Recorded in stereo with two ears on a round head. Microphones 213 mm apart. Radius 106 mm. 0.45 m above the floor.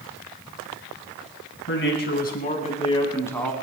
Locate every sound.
1.7 s a man speaking: 50° left (ahead or behind), 3.5 m; by 3.5 s 5° left (ahead or behind), 3 m